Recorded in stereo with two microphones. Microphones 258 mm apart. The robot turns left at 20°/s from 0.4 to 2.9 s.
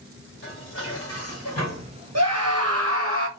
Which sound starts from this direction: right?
A scream, at 2.1 s.